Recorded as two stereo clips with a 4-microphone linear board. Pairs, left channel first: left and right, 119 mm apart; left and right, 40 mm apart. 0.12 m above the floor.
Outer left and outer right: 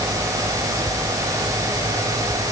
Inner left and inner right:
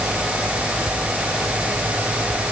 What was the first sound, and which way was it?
Only background noise.